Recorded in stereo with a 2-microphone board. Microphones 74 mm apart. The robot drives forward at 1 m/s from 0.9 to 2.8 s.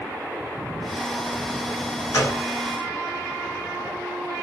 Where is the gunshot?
50° left (ahead or behind), 1.7 m; by 2.4 s 45° left (ahead or behind), 1.8 m.